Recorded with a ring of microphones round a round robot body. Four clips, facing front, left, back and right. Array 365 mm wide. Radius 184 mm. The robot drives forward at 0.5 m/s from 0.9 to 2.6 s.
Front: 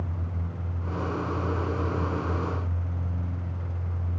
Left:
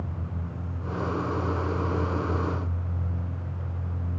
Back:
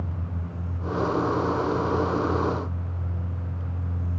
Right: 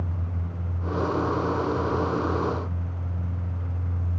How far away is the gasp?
I don't hear a gasp.